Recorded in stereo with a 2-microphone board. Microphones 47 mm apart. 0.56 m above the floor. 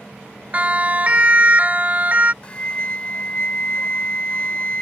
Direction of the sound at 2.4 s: 25° left (ahead or behind).